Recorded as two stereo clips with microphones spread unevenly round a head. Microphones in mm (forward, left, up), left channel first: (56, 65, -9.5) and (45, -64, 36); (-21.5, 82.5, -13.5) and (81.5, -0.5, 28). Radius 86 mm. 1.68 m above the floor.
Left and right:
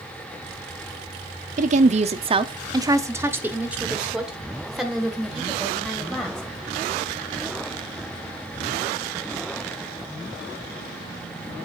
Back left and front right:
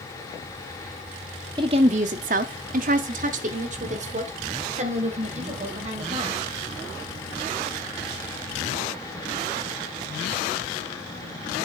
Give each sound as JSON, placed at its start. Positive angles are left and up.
{"t": 1.6, "sound": "a woman speaking", "azimuth_deg": -95, "distance_m": 0.6}